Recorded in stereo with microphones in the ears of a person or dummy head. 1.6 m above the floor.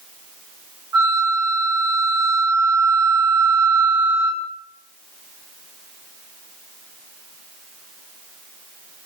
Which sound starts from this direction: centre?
A flute, at 0.9 s.